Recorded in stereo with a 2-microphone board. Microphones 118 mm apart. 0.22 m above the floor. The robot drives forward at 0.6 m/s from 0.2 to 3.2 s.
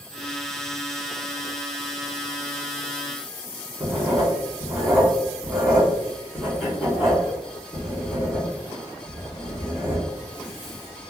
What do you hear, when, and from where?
3.8 s writing: centre (ahead or behind), 1.8 m